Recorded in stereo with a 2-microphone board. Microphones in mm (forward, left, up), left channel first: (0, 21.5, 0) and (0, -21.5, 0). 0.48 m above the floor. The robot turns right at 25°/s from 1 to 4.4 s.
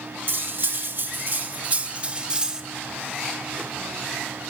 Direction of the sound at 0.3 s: 55° right.